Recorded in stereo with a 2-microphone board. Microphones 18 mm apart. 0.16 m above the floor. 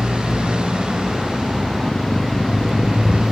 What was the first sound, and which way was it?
A motorcycle, 70° right (ahead or behind).